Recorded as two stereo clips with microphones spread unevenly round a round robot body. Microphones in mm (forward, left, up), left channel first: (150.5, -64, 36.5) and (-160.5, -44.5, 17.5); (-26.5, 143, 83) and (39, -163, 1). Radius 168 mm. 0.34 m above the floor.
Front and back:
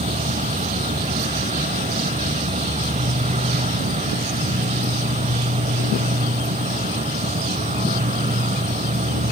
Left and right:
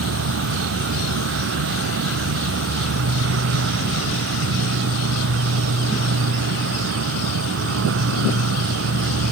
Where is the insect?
115° right, 0.7 m.